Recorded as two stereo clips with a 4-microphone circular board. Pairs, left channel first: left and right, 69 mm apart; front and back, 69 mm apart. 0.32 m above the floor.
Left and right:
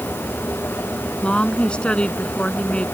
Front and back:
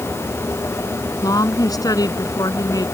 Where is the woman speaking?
20° left.